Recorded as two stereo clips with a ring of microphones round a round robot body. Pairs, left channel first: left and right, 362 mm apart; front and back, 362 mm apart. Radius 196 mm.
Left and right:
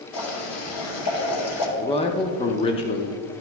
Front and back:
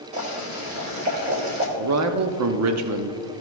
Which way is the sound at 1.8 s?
160° left.